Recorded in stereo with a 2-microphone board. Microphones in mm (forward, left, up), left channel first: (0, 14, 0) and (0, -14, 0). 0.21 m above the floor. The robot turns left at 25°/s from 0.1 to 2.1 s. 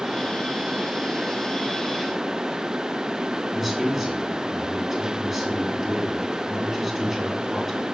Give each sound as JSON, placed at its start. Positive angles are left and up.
{"t": 3.5, "sound": "a man speaking", "side_deg": -15, "distance_m": 2.5}